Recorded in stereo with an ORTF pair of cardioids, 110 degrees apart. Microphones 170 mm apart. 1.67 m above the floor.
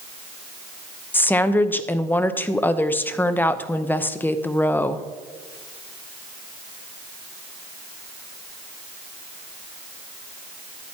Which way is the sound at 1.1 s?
10° left.